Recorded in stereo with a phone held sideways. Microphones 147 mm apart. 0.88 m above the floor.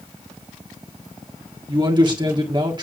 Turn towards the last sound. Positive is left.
turn(degrees=-30)  # may be behind; listen again after turning